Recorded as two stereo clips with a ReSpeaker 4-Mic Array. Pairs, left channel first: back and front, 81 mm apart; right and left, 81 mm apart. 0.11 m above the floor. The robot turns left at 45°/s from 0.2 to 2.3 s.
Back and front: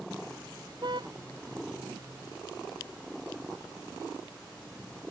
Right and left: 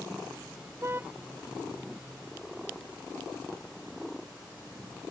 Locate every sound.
0.8 s a car horn: 35° left; by 1.1 s 20° left